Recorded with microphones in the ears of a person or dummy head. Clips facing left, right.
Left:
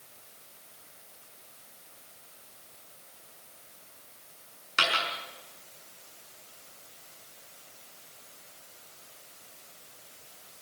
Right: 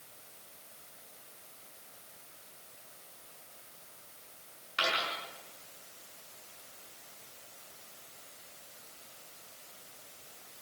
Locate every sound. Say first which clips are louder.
4.8 s a dropped coin: left 2 dB; 55° left (ahead or behind), 6 m